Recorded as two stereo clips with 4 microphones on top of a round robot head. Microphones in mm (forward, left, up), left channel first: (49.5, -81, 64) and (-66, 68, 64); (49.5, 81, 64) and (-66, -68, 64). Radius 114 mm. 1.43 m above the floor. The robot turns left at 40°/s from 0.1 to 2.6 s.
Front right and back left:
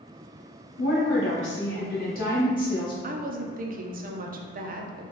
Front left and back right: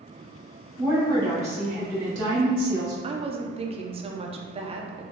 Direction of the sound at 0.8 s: 45° right.